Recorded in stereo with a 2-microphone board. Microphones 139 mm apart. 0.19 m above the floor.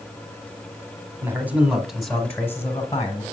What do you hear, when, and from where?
1.2 s a man speaking: 15° right (ahead or behind), 1.2 m; by 3.2 s 25° left (ahead or behind), 1.2 m